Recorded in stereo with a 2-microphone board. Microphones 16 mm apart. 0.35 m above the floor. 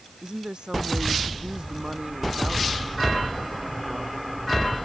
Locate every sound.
0.2 s a woman speaking: 60° right (ahead or behind)